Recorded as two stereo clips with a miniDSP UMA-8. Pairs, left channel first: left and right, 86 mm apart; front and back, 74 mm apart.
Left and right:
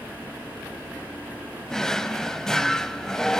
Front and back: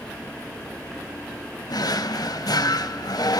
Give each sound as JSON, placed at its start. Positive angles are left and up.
{"t": 1.7, "sound": "a drawer", "azimuth_deg": 10, "distance_m": 0.5}